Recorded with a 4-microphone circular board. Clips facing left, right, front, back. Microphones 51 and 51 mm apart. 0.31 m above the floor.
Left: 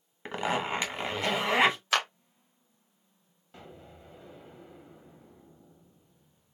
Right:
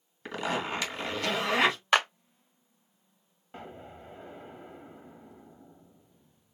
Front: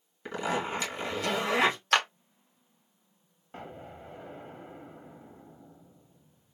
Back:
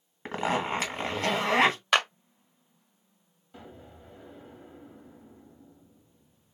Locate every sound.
0.2 s a zipper: 150° left, 1.6 m
1.9 s a clap: 125° right, 1.2 m
3.5 s an explosion: 35° right, 0.8 m